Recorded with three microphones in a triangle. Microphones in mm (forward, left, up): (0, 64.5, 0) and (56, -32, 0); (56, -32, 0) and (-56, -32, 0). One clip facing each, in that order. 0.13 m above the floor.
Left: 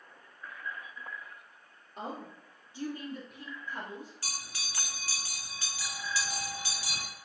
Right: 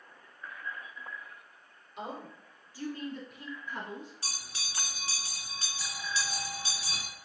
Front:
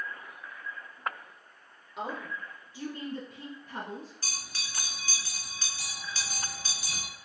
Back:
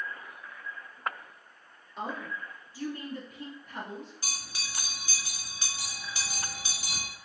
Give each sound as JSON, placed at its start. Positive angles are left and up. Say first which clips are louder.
{"t": 2.0, "sound": "a woman speaking", "louder": "even, even", "azimuth_deg": 80, "distance_m": 1.9}
{"t": 4.2, "sound": "a bell", "louder": "left 1 dB, back 1 dB", "azimuth_deg": -115, "distance_m": 1.6}